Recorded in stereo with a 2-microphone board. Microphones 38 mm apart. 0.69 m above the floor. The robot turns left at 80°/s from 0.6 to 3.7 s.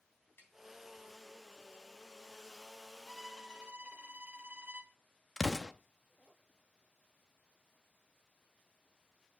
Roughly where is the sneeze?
I don't hear a sneeze.